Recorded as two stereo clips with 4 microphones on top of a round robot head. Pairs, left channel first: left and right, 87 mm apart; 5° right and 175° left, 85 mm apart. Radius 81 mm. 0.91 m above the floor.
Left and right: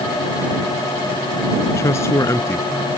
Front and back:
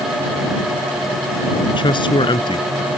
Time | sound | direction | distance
1.7 | a man speaking | 25° left | ?